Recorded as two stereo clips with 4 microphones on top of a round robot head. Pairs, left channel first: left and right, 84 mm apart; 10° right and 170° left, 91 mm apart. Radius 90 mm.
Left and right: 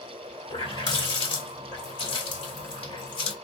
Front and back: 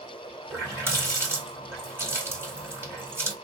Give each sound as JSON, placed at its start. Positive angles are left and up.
{"t": 0.5, "sound": "a running tap", "azimuth_deg": 110, "distance_m": 2.5}